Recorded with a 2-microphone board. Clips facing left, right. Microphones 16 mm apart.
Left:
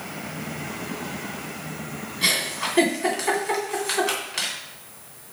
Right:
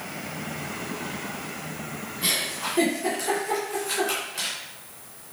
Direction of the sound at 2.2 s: 50° left (ahead or behind).